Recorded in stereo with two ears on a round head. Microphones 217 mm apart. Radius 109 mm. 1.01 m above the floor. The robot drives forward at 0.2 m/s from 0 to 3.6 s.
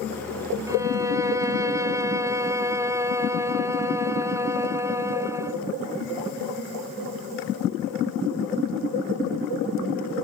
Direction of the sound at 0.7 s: 15° right (ahead or behind).